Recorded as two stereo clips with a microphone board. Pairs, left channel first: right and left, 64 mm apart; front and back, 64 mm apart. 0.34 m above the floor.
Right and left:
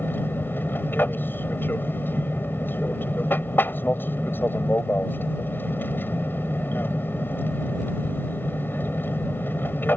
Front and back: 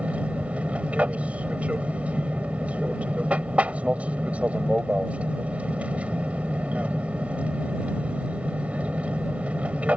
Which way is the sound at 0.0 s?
125° right.